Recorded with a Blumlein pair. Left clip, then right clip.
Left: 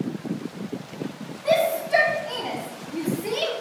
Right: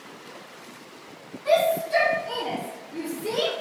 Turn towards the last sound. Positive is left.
turn(degrees=40)